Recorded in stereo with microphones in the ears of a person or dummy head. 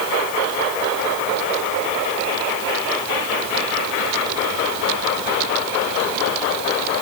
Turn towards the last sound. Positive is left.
No sound to turn to.